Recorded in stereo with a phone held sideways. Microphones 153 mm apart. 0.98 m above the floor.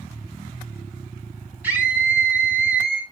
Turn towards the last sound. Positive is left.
turn(degrees=-10)  # may be behind; listen again after turning